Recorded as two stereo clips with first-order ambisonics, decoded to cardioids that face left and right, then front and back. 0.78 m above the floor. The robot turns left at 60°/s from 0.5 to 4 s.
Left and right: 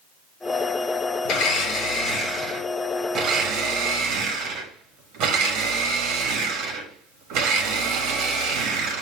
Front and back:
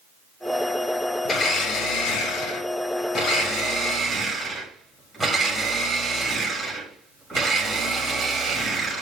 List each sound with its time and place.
1.2 s a blender: 70° left, 1.2 m; by 9.0 s 95° right, 1.2 m